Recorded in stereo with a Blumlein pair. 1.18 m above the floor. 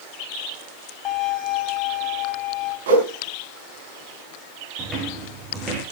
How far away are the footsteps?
About 4 m.